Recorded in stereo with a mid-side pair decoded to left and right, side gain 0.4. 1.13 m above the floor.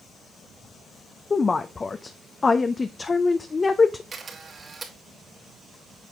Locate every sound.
1.3 s a woman speaking: 35° left, 0.6 m
4.1 s a camera shutter: 45° right, 2.5 m